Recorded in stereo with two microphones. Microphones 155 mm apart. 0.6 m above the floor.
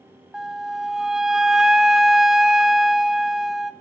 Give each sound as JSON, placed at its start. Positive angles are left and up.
{"t": 0.3, "sound": "a flute", "side_deg": -5, "distance_m": 0.5}